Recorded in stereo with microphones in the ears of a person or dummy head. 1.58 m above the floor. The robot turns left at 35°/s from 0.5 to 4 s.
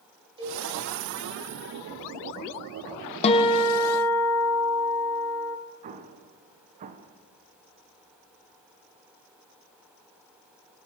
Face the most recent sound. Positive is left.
turn(degrees=-30)  # may be behind; listen again after turning